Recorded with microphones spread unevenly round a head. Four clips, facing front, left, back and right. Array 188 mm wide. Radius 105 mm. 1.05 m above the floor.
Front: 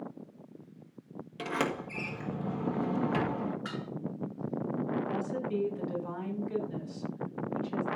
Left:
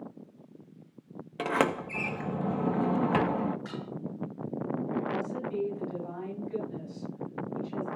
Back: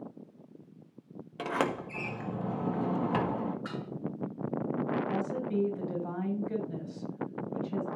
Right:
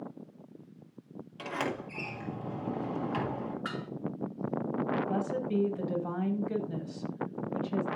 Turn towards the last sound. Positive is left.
turn(degrees=-95)